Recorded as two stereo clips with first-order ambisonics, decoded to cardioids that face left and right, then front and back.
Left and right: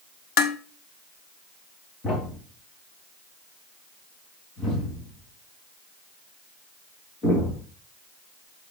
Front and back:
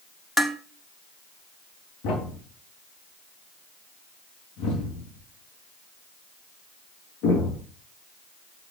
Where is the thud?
25° left, 4 m.